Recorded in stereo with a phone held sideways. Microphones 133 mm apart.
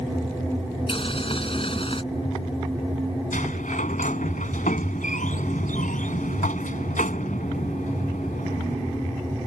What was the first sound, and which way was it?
Boiling, 45° left (ahead or behind).